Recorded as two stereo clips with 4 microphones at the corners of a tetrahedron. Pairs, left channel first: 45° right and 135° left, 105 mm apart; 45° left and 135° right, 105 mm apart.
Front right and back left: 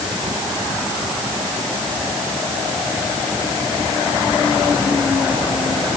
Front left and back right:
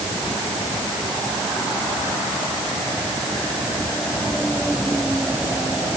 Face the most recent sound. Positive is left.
No sound to turn to.